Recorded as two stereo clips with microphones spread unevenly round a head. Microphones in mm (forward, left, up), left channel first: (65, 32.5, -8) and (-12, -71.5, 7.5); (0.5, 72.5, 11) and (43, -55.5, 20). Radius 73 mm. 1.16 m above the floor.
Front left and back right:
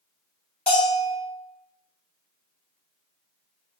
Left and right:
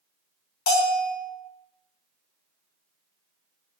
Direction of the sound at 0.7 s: 135° left.